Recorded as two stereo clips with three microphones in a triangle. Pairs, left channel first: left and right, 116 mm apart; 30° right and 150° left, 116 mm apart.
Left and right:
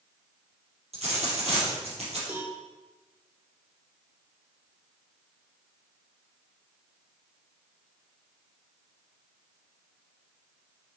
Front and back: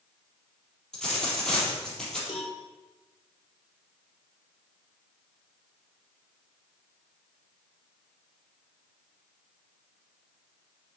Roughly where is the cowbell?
Ahead.